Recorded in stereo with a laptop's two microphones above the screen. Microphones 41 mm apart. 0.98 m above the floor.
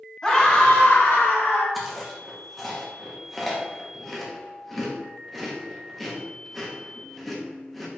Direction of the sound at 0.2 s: 20° left (ahead or behind).